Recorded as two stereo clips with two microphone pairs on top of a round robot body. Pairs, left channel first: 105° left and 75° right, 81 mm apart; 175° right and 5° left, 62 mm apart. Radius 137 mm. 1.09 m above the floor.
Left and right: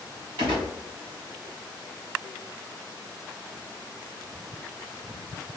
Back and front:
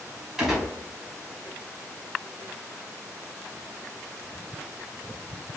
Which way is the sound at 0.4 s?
90° right.